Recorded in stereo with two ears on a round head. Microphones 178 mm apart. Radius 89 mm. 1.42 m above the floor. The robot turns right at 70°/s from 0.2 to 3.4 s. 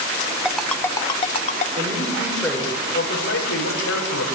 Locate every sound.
0.5 s a ringtone: 5° right (ahead or behind), 0.8 m; by 1.7 s 35° left (ahead or behind), 0.8 m
1.8 s a man speaking: 40° right, 5 m; by 4.3 s 75° left, 5 m